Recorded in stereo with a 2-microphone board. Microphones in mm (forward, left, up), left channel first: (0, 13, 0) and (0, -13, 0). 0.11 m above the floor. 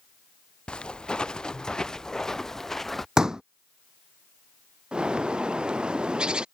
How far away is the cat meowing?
I don't hear a cat meowing.